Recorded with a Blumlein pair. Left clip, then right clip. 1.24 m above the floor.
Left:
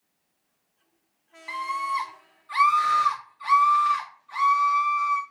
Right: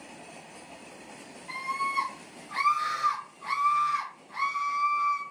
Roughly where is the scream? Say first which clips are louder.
Left 3 dB; ahead left.